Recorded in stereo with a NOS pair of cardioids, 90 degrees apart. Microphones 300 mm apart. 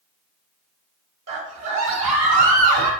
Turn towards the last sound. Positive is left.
turn(degrees=-65)